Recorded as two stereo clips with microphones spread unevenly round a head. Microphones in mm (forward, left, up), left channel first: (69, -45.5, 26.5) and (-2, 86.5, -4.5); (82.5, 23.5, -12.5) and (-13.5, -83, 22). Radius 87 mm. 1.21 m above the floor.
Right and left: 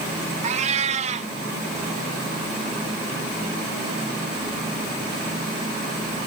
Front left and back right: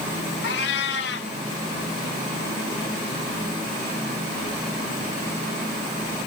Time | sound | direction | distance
0.4 | a cat meowing | 70° left | 1.2 m